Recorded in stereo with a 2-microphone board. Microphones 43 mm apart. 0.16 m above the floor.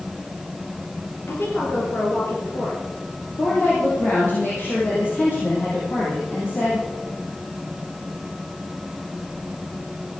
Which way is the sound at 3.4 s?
50° left (ahead or behind).